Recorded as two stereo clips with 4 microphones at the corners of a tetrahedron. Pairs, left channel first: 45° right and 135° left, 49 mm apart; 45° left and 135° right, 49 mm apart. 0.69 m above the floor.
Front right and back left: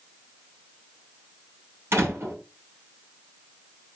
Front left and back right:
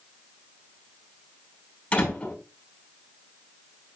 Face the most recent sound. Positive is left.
turn(degrees=105)